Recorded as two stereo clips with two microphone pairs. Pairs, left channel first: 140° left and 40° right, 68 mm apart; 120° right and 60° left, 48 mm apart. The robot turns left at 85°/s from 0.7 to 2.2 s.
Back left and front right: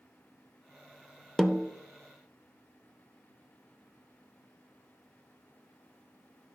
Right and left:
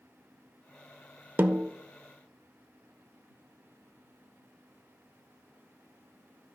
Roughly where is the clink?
No clink in this recording.